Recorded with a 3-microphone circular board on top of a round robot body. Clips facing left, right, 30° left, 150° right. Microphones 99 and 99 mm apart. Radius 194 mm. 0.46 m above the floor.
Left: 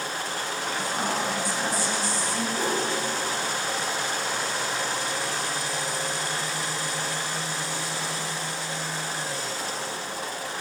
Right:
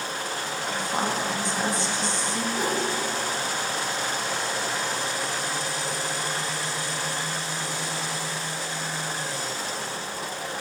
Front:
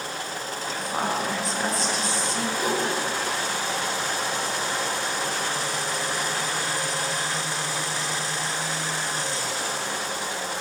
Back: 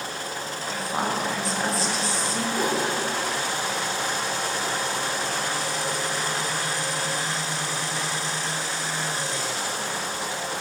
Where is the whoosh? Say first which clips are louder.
Even, back 1 dB; 170° right, 1.3 m.